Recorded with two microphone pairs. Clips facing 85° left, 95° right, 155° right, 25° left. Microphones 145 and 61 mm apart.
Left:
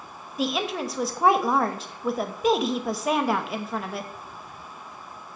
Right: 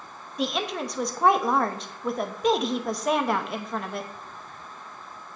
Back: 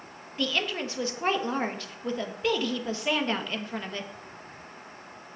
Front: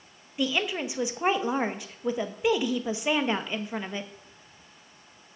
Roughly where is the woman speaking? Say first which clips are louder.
Left 1 dB, front 2 dB; ahead.